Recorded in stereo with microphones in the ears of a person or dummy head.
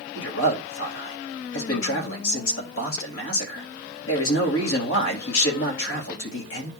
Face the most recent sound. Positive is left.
turn(degrees=85)